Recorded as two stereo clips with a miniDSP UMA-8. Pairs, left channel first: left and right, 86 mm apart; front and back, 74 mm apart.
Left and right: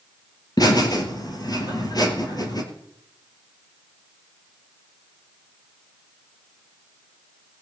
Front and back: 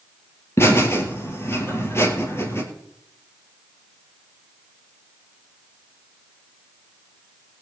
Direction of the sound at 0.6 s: 50° left.